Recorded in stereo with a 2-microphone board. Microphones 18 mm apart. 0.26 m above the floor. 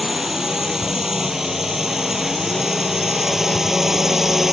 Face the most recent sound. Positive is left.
turn(degrees=-20)  # may be behind; listen again after turning